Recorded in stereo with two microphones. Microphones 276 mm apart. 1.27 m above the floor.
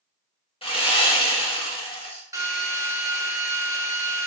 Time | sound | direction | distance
0.6 | sawing | 20° left (ahead or behind) | 0.8 m
2.3 | a drill | 10° right (ahead or behind) | 0.7 m